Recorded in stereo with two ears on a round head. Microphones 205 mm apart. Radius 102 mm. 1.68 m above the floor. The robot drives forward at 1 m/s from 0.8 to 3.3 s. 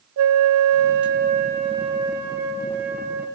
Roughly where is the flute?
Right.